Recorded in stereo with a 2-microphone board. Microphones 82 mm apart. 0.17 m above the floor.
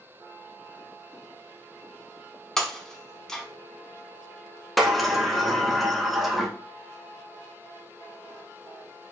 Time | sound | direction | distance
2.6 | breaking glass | 5° left (ahead or behind) | 0.8 m
4.8 | a sliding door | centre (ahead or behind) | 0.7 m